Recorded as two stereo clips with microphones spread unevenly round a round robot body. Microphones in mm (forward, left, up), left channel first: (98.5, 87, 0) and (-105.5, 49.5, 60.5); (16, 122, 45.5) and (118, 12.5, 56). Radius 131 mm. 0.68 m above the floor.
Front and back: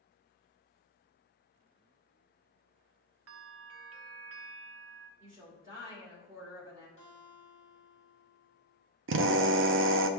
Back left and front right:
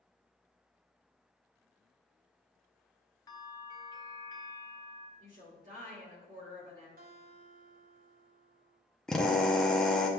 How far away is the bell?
About 0.8 m.